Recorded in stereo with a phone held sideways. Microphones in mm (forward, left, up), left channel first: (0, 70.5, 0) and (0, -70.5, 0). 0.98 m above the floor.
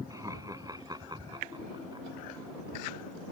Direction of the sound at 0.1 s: 25° right (ahead or behind).